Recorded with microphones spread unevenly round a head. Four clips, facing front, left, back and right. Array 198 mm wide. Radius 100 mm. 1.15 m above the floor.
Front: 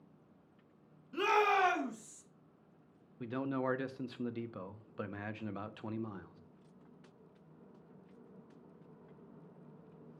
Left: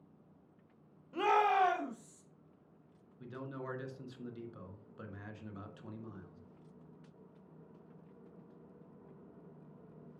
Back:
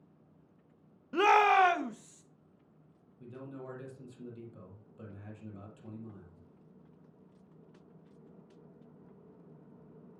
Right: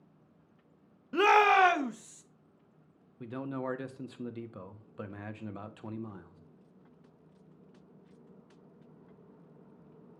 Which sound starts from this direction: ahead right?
A man speaking, at 3.2 s.